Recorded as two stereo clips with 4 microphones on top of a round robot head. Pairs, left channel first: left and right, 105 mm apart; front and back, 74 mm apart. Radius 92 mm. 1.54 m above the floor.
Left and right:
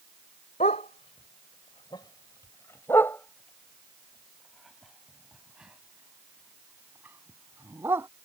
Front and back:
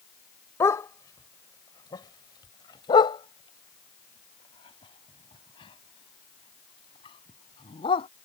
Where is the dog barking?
45° left; by 8.1 s 15° right.